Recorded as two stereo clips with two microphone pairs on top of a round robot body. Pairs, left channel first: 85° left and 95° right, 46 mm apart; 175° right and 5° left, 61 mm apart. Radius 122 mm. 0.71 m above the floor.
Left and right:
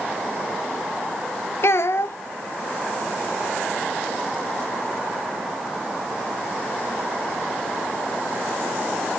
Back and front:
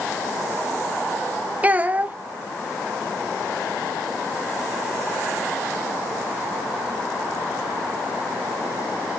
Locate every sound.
1.6 s a child speaking: 65° left, 0.7 m